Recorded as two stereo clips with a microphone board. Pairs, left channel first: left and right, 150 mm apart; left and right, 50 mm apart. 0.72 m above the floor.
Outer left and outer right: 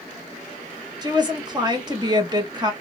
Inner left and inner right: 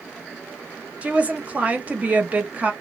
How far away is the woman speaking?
About 1.1 m.